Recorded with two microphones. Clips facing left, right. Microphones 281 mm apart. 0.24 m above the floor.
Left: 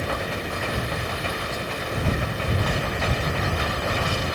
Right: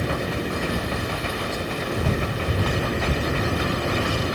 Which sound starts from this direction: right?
A helicopter, at 0.0 s.